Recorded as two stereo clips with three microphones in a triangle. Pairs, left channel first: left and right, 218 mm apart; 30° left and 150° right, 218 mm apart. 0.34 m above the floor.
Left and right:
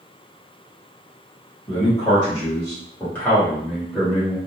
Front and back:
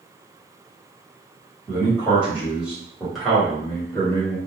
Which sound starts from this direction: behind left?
A man speaking, at 1.7 s.